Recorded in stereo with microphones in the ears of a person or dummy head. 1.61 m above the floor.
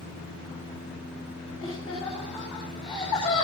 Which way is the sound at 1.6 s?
35° left (ahead or behind).